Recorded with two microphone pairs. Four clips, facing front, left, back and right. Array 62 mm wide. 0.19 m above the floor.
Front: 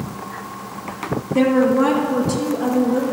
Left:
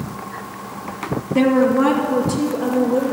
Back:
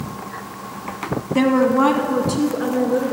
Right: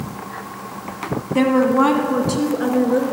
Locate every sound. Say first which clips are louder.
1.4 s a woman speaking: even, even; 155° right, 1.0 m; by 3.1 s 115° right, 2.5 m